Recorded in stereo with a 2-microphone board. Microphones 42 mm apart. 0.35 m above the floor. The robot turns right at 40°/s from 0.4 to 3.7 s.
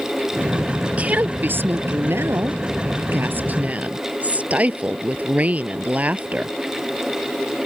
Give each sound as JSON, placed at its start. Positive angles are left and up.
{"t": 0.8, "sound": "a woman speaking", "azimuth_deg": -155}